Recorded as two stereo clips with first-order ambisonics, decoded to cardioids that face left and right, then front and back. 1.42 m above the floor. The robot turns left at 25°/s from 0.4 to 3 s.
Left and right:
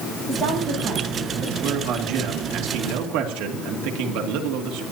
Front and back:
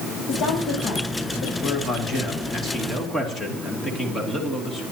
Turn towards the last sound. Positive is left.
turn(degrees=-75)